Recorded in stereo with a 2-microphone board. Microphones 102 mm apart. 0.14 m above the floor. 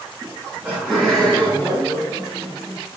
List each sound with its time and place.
0.2 s laughter: 20° right (ahead or behind), 1.2 m; by 2.8 s 40° left (ahead or behind), 1.4 m